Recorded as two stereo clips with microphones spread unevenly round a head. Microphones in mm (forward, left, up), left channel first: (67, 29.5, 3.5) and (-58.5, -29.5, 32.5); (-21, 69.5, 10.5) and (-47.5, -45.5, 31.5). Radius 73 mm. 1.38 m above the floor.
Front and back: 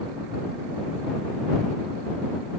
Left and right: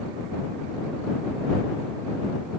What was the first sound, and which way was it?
Only background noise.